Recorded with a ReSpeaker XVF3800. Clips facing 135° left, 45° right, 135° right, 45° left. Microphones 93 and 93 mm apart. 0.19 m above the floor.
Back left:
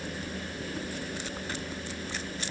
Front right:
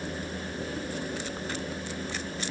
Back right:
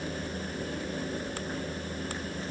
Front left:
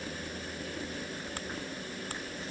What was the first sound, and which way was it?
Only background noise.